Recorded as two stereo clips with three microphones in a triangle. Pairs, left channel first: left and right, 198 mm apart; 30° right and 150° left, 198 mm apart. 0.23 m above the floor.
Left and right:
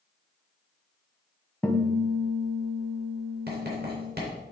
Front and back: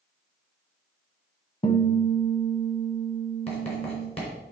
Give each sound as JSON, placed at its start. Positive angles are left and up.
{"t": 1.6, "sound": "a guitar", "azimuth_deg": 10, "distance_m": 1.0}
{"t": 3.5, "sound": "writing", "azimuth_deg": -80, "distance_m": 3.0}